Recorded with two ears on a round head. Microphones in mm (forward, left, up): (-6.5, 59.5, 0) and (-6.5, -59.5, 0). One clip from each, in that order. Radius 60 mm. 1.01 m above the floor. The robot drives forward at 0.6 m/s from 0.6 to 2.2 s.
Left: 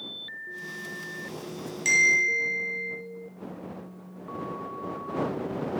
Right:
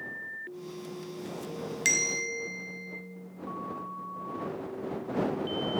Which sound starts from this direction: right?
A bell, at 1.9 s.